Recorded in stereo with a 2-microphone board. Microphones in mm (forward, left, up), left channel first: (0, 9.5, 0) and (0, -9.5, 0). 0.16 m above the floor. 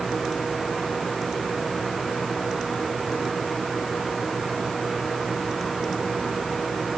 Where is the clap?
I don't hear a clap.